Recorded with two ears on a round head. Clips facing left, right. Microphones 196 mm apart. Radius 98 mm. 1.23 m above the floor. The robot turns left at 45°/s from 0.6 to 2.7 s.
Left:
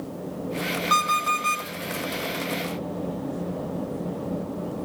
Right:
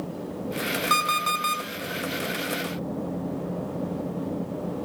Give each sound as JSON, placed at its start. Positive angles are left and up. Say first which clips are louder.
{"t": 0.9, "sound": "an alarm clock", "louder": "left 1 dB", "azimuth_deg": -40, "distance_m": 4.0}